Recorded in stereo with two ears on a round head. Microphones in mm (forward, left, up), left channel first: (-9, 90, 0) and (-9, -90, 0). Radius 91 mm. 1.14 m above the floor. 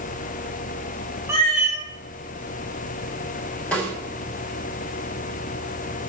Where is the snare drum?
5° left (ahead or behind), 3.5 m.